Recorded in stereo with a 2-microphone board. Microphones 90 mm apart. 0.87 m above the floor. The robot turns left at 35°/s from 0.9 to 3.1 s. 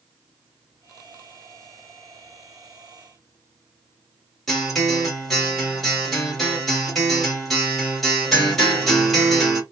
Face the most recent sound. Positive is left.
turn(degrees=0)  # may be behind; listen again after turning